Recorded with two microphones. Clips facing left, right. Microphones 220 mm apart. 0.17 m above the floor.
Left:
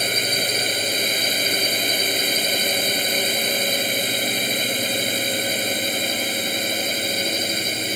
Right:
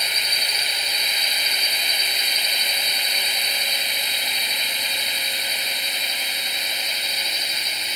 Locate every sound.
0.0 s a drone: 50° left (ahead or behind)